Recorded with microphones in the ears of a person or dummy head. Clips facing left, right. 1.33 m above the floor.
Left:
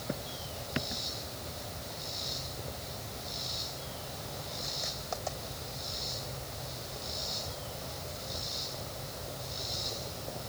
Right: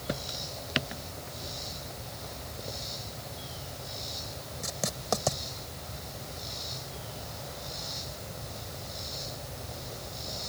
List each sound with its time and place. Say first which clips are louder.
4.6 s writing: right 7 dB; 65° right (ahead or behind)